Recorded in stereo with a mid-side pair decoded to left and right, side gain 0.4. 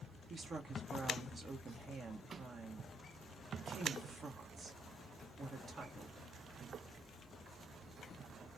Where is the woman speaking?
50° right, 1.4 m.